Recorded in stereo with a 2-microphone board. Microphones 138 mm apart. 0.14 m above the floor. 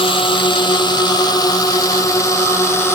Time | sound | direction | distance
0.0 | a drone | 40° left (ahead or behind) | ?